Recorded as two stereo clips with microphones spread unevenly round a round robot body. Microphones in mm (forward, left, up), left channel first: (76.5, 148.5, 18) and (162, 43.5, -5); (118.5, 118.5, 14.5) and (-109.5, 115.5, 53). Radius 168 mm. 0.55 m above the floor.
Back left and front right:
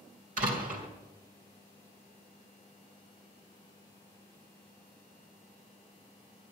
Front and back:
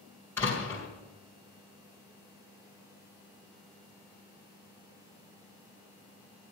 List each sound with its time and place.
0.4 s a door slam: 80° right, 2 m